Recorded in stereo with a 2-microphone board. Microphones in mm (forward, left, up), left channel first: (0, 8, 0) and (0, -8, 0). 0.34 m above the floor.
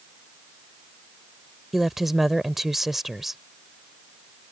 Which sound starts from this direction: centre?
A woman speaking, at 1.7 s.